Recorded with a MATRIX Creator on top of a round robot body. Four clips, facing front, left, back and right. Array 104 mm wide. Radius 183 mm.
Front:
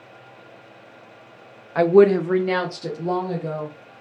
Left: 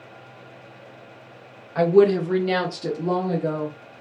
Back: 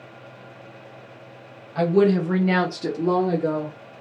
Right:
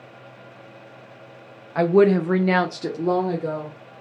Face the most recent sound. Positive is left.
turn(degrees=-145)